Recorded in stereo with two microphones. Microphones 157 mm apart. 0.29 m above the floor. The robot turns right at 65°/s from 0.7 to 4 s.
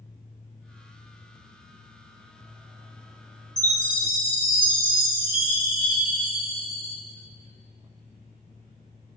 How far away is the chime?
About 2.5 m.